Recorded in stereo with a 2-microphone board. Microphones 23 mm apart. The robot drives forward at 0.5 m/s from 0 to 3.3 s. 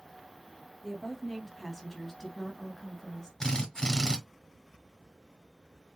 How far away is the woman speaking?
About 1.1 m.